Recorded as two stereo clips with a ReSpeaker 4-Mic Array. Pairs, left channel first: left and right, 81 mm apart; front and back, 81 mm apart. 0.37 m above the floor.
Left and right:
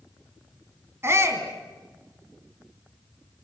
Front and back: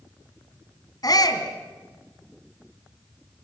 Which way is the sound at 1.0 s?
35° right.